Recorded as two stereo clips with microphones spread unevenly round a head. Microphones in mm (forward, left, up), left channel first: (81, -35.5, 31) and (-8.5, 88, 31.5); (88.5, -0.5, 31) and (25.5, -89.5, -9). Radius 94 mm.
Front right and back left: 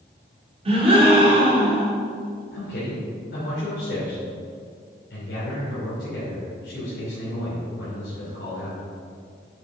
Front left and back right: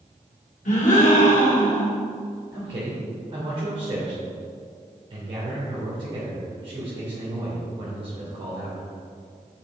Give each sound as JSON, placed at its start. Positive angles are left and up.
{"t": 0.7, "sound": "a gasp", "azimuth_deg": 75, "distance_m": 2.5}
{"t": 2.5, "sound": "a man speaking", "azimuth_deg": -85, "distance_m": 3.0}